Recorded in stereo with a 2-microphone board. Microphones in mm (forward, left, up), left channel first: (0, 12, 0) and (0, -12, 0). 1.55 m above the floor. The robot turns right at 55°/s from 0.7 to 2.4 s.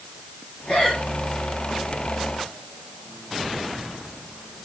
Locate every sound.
0.7 s breathing: 30° left (ahead or behind), 9.5 m; by 1.0 s 45° left (ahead or behind), 9.5 m